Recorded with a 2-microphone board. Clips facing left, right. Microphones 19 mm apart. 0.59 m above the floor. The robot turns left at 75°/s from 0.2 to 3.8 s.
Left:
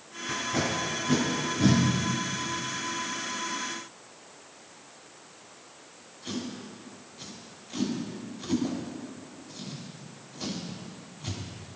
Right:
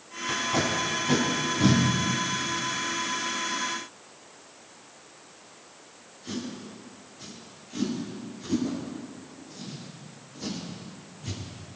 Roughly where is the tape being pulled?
Right.